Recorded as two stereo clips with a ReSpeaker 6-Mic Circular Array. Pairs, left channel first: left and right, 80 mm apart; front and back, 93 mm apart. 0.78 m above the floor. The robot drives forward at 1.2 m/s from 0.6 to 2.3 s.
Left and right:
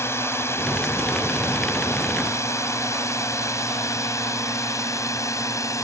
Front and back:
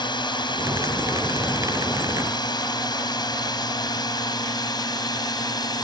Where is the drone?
35° left; by 5.8 s 40° left.